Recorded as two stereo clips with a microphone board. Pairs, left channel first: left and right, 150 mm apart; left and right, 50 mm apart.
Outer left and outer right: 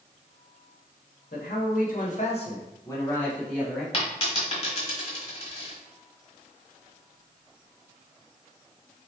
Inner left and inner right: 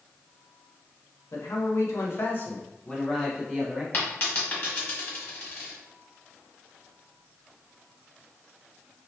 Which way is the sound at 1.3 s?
80° left.